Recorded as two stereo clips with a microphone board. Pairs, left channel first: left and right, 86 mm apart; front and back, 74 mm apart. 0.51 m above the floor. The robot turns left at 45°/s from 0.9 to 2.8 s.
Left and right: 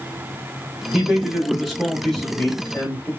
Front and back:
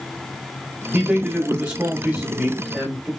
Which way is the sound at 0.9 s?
140° right.